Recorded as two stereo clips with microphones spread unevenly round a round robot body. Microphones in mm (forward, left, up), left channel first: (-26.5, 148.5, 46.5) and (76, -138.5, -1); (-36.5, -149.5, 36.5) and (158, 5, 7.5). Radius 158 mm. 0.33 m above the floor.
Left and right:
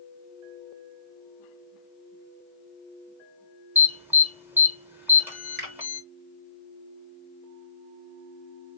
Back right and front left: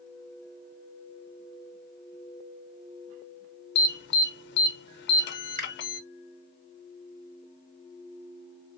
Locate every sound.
3.8 s an alarm: 135° right, 0.8 m
5.6 s a finger snap: 20° right, 2.5 m